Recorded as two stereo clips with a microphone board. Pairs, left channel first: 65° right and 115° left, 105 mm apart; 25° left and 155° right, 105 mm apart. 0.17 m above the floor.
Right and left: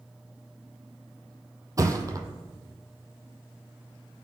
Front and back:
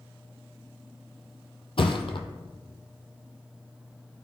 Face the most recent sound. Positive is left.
turn(degrees=55)